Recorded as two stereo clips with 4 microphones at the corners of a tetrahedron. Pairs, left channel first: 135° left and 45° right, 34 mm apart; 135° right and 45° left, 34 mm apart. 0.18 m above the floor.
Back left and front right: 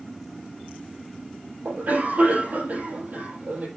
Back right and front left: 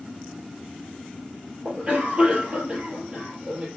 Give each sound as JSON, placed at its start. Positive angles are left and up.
{"t": 1.6, "sound": "a cough", "azimuth_deg": -10, "distance_m": 5.0}